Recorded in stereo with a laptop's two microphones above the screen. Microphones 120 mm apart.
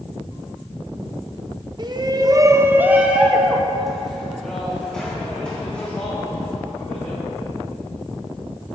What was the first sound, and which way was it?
A shout, 35° right (ahead or behind).